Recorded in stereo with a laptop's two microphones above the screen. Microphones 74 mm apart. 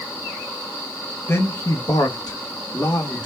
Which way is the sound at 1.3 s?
35° left (ahead or behind).